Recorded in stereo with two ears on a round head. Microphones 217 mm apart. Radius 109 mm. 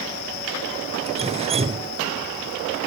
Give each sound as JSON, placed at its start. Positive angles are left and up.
{"t": 1.1, "sound": "dripping", "side_deg": -25}